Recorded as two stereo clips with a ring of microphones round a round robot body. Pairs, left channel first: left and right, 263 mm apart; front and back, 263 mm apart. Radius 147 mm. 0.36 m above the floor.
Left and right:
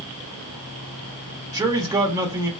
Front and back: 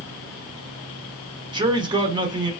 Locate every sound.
1.5 s a man speaking: 145° right, 1.0 m